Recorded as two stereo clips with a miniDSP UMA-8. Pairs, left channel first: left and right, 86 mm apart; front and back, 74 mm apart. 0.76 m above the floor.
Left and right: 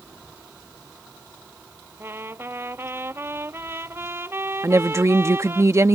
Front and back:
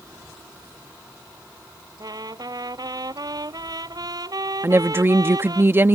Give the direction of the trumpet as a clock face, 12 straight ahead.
5 o'clock.